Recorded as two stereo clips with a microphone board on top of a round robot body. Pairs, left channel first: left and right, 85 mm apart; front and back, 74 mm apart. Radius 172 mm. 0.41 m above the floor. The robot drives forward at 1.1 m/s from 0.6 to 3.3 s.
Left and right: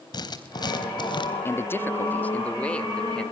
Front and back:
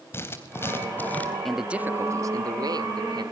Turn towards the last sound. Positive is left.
turn(degrees=170)